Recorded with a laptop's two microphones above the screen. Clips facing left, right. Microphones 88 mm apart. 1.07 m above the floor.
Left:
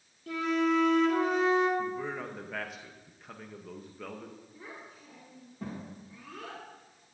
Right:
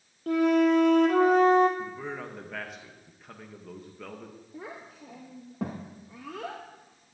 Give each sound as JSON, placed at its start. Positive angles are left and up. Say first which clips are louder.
{"t": 0.3, "sound": "a flute", "louder": "right 6 dB", "side_deg": -55, "distance_m": 1.2}
{"t": 1.8, "sound": "a man speaking", "louder": "left 2 dB", "side_deg": 0, "distance_m": 0.8}
{"t": 4.5, "sound": "a child speaking", "louder": "right 5 dB", "side_deg": -75, "distance_m": 0.8}